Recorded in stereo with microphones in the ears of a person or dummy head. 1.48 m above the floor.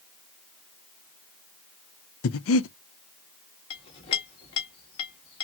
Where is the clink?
30° left (ahead or behind), 1.3 m.